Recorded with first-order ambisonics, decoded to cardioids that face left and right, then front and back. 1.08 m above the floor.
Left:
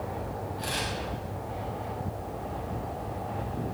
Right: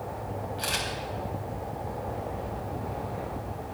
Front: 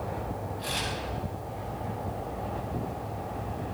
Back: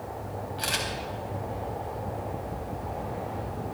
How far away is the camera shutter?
About 3.5 m.